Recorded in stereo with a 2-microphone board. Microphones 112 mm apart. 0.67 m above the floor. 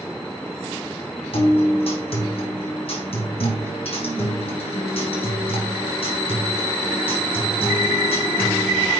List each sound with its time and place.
1.3 s a guitar: 60° left (ahead or behind), 4.5 m